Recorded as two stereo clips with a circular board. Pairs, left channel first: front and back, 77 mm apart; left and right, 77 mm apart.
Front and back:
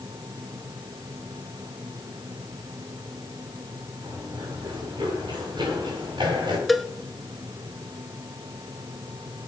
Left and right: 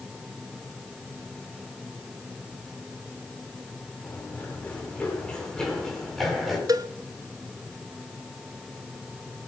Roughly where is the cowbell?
Right.